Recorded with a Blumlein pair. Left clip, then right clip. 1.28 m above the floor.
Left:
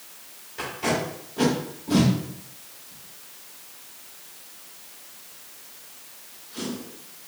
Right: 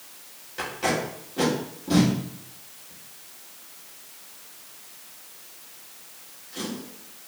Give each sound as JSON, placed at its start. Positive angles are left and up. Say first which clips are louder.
{"t": 0.6, "sound": "tape being pulled", "louder": "even", "azimuth_deg": -20, "distance_m": 2.0}